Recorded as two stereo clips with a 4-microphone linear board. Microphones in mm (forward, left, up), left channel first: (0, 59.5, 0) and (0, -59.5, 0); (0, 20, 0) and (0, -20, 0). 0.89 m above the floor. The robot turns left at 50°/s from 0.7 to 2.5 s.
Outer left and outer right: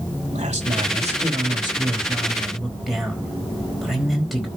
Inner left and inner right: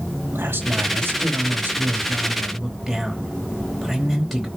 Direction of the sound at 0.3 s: 90° right.